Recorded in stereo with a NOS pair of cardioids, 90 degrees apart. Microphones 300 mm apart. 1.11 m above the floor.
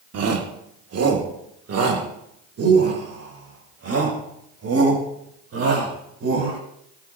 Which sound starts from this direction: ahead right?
A shout, at 0.1 s.